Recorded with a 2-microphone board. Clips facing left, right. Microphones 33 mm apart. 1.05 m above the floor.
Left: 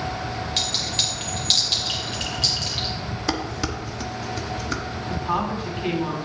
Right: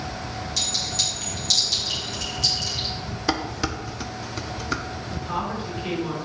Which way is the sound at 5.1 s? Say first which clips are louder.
Left 4 dB; 60° left (ahead or behind).